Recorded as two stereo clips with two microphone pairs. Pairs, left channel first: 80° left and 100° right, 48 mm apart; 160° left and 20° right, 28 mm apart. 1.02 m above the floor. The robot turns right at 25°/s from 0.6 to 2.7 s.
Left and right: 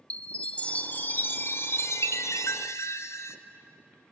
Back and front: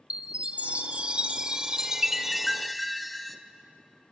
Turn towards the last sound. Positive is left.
turn(degrees=75)